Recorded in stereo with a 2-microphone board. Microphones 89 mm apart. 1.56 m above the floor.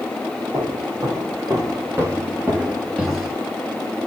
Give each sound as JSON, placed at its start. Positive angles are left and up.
{"t": 0.5, "sound": "footsteps", "side_deg": -50, "distance_m": 2.5}